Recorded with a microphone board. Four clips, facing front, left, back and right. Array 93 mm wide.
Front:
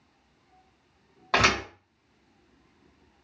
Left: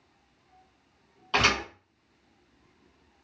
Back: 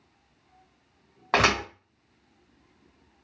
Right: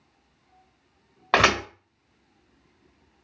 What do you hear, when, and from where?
1.3 s a thud: 110° right, 1.0 m